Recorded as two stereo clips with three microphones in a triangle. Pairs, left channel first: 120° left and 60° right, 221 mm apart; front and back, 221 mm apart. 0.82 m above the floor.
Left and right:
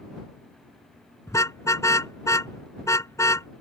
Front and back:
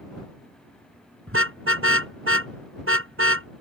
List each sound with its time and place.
1.3 s a car horn: 165° right